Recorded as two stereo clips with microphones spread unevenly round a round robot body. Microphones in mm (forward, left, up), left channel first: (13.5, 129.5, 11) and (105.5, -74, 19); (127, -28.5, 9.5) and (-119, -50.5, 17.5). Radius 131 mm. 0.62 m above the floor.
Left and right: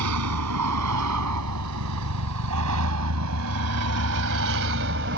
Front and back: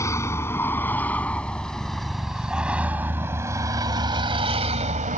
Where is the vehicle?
75° right; by 5.2 s 115° right.